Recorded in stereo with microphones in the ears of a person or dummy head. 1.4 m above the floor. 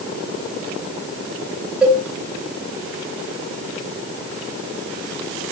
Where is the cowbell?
5° right (ahead or behind), 2.5 m.